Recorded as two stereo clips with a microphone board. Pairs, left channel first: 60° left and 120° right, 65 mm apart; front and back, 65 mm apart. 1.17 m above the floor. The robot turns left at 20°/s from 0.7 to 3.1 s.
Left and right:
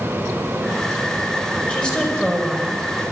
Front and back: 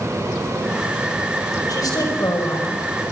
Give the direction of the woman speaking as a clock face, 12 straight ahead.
12 o'clock.